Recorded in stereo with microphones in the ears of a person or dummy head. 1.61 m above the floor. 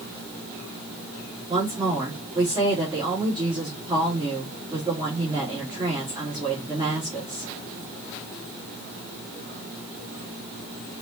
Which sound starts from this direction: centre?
A woman speaking, at 1.5 s.